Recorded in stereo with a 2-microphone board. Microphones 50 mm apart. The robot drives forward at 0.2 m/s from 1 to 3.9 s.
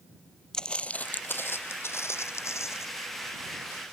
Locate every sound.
0.5 s footsteps: 10° left (ahead or behind); by 2.9 s 70° left (ahead or behind)